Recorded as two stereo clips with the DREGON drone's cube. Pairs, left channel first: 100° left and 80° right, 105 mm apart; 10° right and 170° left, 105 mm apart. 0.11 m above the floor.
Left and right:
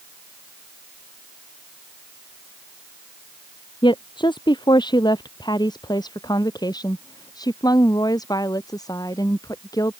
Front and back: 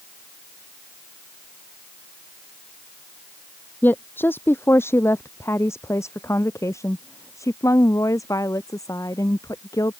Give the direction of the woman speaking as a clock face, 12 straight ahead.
10 o'clock.